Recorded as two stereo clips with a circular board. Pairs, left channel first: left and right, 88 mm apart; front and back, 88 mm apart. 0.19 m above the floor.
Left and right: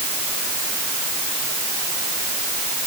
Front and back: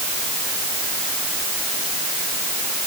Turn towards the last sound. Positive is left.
No sound to turn to.